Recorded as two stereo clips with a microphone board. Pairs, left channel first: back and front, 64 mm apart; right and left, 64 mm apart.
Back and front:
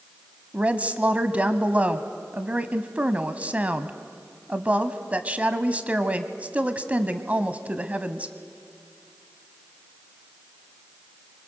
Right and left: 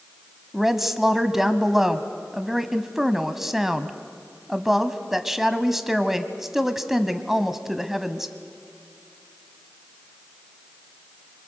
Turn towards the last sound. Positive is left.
turn(degrees=15)